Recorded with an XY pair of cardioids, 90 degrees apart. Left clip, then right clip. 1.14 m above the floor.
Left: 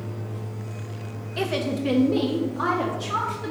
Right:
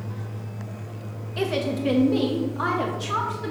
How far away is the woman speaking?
About 1.3 m.